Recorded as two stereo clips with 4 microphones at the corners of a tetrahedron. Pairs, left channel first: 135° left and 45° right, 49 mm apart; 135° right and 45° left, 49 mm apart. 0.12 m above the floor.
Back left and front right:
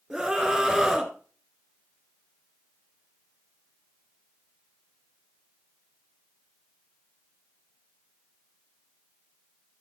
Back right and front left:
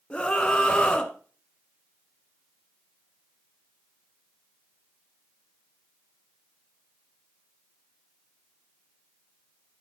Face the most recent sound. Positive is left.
turn(degrees=-110)